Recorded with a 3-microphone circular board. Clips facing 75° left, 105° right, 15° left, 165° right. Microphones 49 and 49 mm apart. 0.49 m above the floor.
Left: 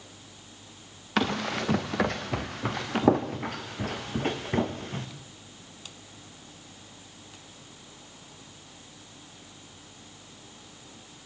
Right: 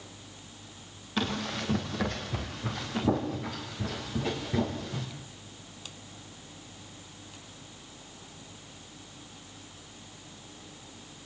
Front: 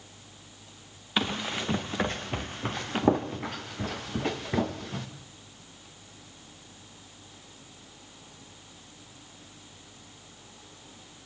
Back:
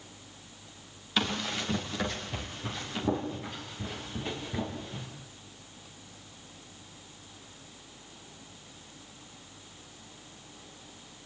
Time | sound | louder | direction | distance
1.2 | running footsteps | left 4 dB, front 1 dB | 90° left | 2.5 m